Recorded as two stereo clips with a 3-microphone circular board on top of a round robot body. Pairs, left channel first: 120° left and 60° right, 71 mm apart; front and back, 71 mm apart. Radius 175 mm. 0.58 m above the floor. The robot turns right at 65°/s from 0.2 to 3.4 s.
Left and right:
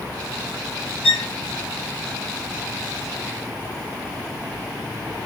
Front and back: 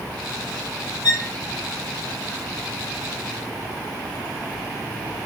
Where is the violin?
40° left, 0.9 m; by 1.3 s 55° left, 0.9 m.